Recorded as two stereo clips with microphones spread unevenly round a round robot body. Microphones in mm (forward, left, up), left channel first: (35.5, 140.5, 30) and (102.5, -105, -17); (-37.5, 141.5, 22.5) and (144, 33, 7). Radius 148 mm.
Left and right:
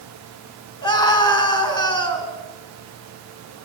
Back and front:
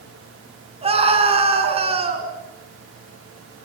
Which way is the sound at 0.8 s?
30° left.